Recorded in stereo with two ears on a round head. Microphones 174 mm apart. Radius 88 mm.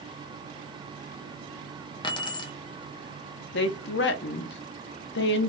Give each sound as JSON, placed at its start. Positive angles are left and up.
{"t": 2.0, "sound": "keys jangling", "side_deg": 25, "distance_m": 0.6}
{"t": 3.5, "sound": "a woman speaking", "side_deg": 60, "distance_m": 0.6}